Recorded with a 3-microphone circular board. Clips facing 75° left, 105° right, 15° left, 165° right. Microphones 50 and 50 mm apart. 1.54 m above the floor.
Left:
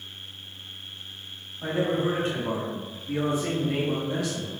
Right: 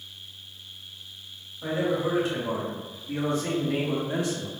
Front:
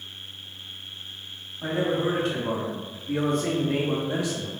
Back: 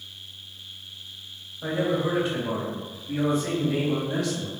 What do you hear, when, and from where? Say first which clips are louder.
1.6 s a man speaking: left 1 dB, even; 30° left, 1.4 m; by 4.5 s 70° right, 0.5 m